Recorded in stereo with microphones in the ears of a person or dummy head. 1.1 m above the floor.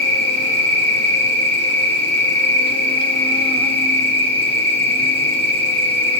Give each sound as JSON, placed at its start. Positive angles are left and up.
{"t": 0.0, "sound": "an insect", "side_deg": -40, "distance_m": 3.0}